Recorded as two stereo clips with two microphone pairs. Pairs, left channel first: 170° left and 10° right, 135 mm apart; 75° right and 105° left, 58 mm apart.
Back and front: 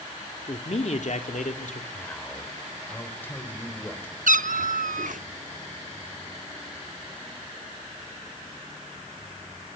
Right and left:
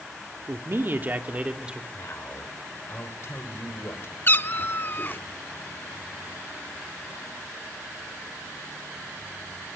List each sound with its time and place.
0.5 s a man speaking: 135° left, 1.8 m; by 1.8 s straight behind, 2.5 m
1.9 s a man speaking: 115° right, 3 m
4.3 s a cat meowing: 20° right, 0.7 m